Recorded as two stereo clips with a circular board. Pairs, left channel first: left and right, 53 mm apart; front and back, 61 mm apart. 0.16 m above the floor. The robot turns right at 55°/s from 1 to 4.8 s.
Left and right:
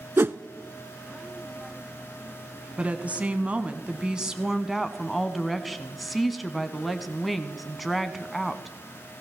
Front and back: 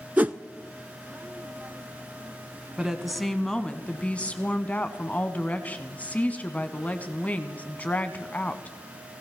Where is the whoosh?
120° right, 0.7 m.